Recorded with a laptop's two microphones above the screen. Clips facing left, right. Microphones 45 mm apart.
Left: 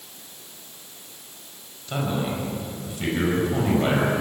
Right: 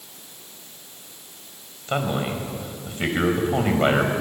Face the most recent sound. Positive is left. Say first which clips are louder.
# right 2 dB
turn(degrees=-40)  # may be behind; listen again after turning